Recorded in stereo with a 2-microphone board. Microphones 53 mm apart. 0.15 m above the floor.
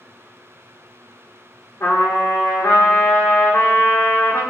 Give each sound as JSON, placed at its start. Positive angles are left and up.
{"t": 1.8, "sound": "a trumpet", "side_deg": 70, "distance_m": 2.0}